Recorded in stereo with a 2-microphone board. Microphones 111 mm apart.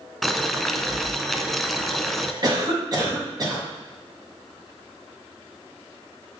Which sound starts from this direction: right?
A cough, at 2.4 s.